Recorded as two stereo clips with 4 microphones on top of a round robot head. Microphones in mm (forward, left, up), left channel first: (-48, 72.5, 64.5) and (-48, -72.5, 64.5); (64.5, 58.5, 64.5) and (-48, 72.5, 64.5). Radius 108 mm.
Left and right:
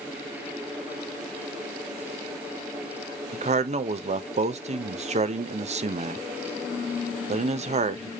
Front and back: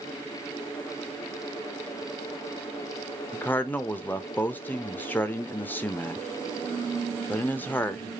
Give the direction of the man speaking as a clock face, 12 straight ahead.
3 o'clock.